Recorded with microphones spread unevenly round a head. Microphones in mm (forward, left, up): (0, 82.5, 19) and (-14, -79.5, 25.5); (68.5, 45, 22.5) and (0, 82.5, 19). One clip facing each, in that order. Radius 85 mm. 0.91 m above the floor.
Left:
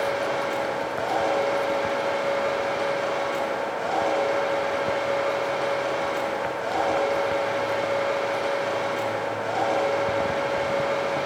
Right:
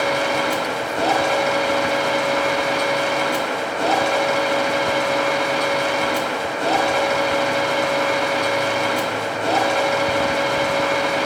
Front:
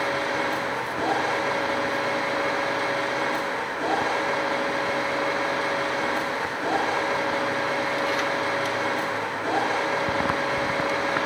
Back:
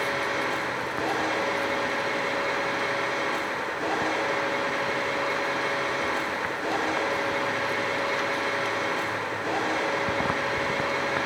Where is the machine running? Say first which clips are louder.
Right 4 dB, front 2 dB; 100° right, 2.5 m.